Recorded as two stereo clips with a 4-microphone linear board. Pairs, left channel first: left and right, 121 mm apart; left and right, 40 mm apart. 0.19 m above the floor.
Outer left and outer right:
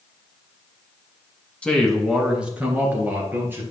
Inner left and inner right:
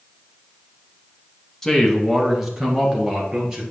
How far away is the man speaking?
About 1.3 m.